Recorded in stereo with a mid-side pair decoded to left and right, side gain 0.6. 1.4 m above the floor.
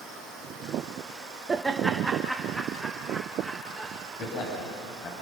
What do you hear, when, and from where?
1.5 s laughter: 25° right, 1.2 m; by 3.9 s straight ahead, 4 m
4.2 s a man speaking: 45° left, 8 m